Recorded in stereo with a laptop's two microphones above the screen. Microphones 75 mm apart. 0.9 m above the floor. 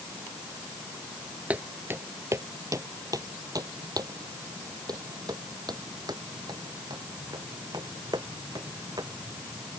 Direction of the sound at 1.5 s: 20° right (ahead or behind).